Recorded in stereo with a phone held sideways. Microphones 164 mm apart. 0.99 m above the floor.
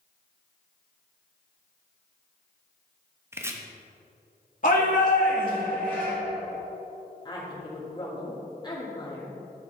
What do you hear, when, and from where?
3.3 s chopping: 15° right (ahead or behind), 1.0 m
4.6 s a shout: 55° left (ahead or behind), 1.8 m
7.2 s a woman speaking: 30° left (ahead or behind), 3 m